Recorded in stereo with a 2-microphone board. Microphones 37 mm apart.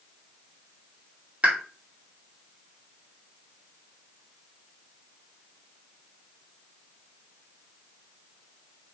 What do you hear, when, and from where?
1.4 s a pop: 40° right (ahead or behind), 2.5 m